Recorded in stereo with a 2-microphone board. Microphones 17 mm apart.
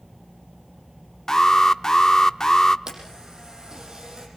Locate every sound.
1.3 s an alarm: 35° left (ahead or behind), 0.6 m
2.9 s a camera shutter: 50° right (ahead or behind), 6 m